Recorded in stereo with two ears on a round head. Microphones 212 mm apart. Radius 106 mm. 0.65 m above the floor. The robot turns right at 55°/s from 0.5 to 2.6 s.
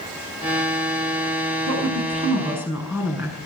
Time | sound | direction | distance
1.7 | a woman speaking | 60° right | 7.5 m